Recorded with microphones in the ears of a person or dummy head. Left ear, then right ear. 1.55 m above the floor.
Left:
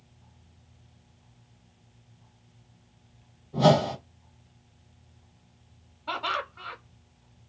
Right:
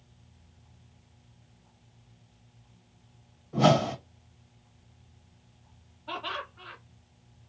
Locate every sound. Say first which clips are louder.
3.5 s a whoosh: left 2 dB; 50° right (ahead or behind), 1.1 m
6.1 s laughter: left 5 dB; 65° left (ahead or behind), 0.9 m